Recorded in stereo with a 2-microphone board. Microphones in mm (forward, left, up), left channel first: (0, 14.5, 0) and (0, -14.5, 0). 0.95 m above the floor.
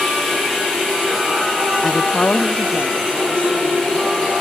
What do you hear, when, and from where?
1.8 s a woman speaking: 20° left (ahead or behind), 0.6 m; by 4.3 s 45° left (ahead or behind), 3 m